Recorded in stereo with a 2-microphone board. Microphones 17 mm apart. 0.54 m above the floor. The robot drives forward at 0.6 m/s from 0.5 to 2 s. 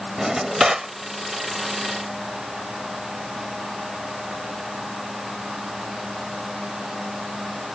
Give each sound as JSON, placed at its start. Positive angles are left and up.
{"t": 0.2, "sound": "a drawer", "side_deg": -30}